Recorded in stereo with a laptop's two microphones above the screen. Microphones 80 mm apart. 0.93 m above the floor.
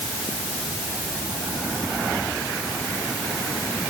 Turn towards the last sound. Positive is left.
No sound to turn to.